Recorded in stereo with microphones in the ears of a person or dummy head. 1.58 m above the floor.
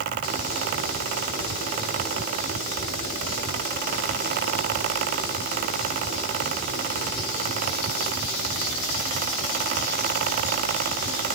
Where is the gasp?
I don't hear a gasp.